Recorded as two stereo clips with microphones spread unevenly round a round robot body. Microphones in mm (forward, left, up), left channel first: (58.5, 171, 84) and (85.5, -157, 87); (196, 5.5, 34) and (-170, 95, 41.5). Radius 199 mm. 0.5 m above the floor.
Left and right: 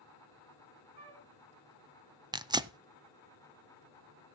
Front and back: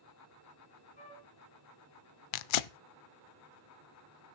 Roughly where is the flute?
Right.